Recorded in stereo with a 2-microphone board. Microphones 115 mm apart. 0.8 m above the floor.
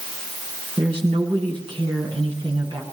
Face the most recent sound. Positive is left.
turn(degrees=-45)  # may be behind; listen again after turning